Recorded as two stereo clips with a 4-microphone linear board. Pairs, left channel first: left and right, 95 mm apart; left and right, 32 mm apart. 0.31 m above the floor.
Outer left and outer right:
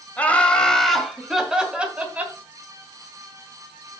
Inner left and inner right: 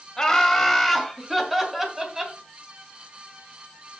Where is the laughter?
15° left (ahead or behind), 1.9 m; by 2.4 s 15° right (ahead or behind), 2.5 m.